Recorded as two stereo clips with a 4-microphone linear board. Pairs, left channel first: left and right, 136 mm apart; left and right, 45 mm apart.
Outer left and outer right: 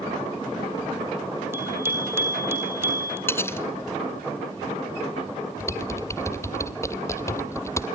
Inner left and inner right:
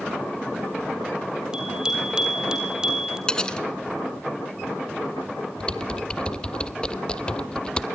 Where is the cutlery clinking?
15° left (ahead or behind), 1.0 m.